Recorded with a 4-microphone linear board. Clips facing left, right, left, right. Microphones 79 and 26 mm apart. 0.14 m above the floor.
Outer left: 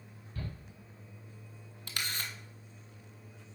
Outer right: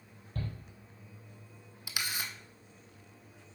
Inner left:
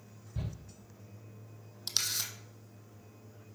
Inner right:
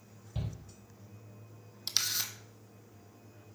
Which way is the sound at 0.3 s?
45° right (ahead or behind).